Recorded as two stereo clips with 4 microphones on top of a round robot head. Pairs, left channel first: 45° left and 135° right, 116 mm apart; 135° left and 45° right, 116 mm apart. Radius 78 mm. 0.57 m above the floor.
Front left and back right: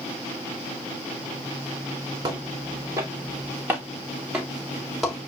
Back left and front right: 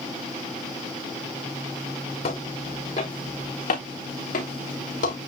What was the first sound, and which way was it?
Footsteps, 165° left.